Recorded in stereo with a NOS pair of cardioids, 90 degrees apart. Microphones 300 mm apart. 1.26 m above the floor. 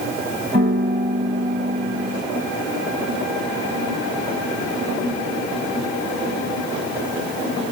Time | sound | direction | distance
0.5 | a piano | 30° right | 1.4 m